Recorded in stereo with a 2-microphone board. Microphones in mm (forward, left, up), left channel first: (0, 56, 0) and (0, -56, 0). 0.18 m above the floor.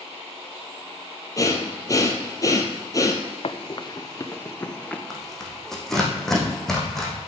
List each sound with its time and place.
1.4 s breathing: 30° left (ahead or behind), 1.4 m
3.4 s running footsteps: 60° left (ahead or behind), 0.9 m; by 5.0 s 10° left (ahead or behind), 1.7 m
5.1 s tearing paper: 5° left (ahead or behind), 2.5 m